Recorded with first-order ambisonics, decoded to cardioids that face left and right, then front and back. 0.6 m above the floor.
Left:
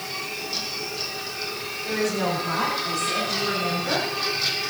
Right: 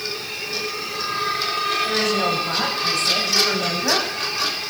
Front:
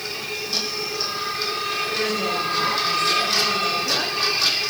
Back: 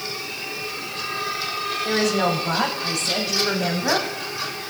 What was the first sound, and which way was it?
A woman speaking, 170° right.